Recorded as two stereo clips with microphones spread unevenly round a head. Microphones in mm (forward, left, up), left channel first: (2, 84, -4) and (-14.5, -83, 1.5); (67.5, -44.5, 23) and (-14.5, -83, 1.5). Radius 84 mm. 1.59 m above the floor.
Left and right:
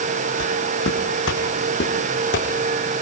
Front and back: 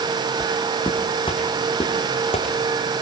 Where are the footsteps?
90° left, 5.5 m; by 2.5 s 60° left, 5.5 m.